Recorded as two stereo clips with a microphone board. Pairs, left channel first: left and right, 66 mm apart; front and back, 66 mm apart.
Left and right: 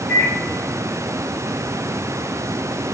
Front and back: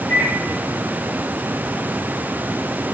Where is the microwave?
130° left, 1.1 m.